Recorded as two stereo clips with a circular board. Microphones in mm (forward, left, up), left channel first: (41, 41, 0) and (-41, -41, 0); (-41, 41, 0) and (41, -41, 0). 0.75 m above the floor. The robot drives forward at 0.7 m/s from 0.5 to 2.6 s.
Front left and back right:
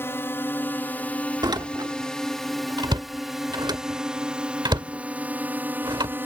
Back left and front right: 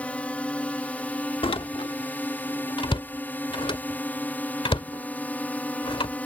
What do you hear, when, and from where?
0.0 s a drone: 75° left; by 6.3 s 170° right
1.4 s a door slam: 170° left; by 6.3 s 175° left